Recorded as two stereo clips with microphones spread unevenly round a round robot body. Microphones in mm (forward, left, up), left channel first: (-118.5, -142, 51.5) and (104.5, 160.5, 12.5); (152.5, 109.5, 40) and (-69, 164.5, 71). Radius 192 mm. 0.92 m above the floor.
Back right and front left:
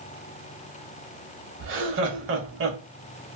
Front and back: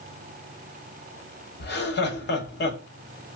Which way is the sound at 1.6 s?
5° left.